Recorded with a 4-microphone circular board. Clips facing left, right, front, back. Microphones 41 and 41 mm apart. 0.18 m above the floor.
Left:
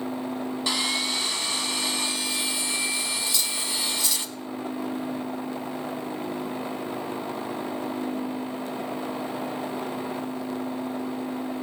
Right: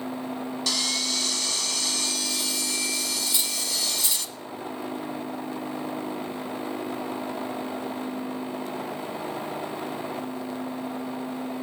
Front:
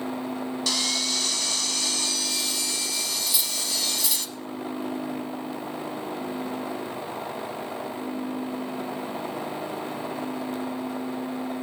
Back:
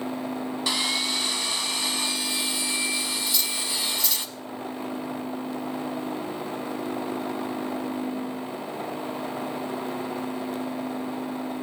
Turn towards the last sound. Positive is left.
turn(degrees=-65)